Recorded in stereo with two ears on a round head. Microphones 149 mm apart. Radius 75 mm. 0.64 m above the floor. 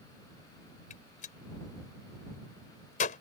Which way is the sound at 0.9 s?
50° left (ahead or behind).